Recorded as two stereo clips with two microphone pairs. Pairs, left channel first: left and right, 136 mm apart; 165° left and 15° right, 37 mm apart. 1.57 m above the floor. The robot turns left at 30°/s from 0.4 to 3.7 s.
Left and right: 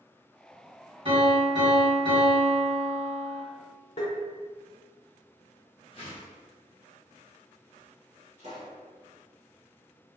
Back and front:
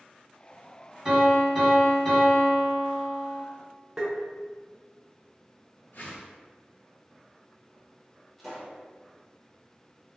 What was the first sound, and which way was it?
A piano, 75° right.